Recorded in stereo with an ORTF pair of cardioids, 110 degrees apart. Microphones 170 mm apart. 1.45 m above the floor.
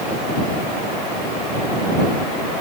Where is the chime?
No chime in this recording.